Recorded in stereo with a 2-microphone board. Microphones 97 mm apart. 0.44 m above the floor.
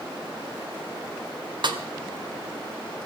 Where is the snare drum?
55° right (ahead or behind), 1.6 m.